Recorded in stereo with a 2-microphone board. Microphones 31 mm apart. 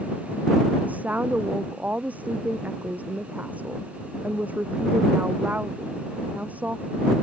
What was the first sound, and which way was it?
A woman speaking, 55° right (ahead or behind).